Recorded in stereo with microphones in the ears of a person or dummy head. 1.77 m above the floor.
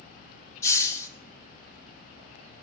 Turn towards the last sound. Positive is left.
turn(degrees=15)  # may be behind; listen again after turning